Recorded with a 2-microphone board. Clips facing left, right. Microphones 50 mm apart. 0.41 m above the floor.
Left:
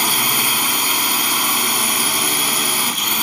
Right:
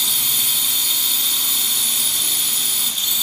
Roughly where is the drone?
Left.